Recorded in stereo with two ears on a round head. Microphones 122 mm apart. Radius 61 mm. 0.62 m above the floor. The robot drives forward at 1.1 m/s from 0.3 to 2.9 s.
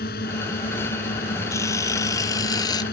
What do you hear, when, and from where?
0.0 s a drone: 75° left (ahead or behind); by 2.9 s 80° left
1.5 s a camera shutter: 20° left (ahead or behind); by 2.8 s 30° left (ahead or behind)